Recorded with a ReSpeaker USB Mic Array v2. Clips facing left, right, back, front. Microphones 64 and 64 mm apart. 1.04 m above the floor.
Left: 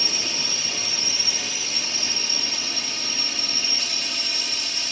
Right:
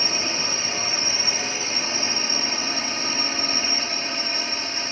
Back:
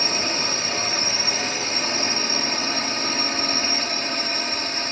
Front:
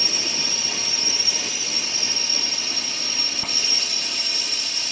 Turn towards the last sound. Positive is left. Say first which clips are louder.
# right 4 dB, back 5 dB
turn(degrees=-140)